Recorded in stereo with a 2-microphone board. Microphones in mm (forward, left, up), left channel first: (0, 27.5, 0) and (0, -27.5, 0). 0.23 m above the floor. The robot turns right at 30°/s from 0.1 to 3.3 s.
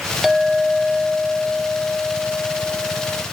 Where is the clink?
10° right, 1.2 m; by 3.2 s 80° left, 1.2 m.